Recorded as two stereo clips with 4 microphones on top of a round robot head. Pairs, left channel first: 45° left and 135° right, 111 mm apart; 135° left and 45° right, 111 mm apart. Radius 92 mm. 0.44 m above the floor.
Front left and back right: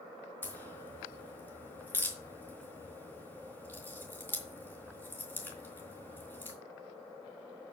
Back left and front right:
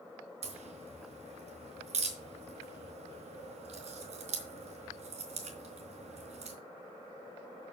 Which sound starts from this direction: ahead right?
A crack, at 0.4 s.